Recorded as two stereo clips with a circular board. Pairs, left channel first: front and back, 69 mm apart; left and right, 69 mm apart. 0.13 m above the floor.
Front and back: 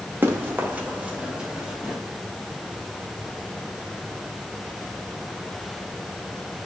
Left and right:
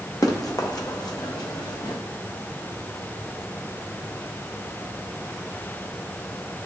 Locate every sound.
0.2 s running footsteps: 120° left, 1.8 m; by 2.0 s 100° left, 2.5 m